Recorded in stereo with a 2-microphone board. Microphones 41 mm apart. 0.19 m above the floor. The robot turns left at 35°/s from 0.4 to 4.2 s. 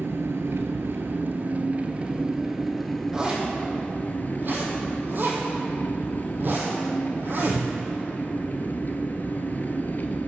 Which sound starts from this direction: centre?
A zipper, at 3.1 s.